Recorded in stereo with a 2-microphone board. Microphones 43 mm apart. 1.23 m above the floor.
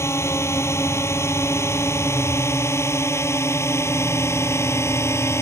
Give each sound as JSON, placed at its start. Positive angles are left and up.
{"t": 0.0, "sound": "a drone", "side_deg": 85}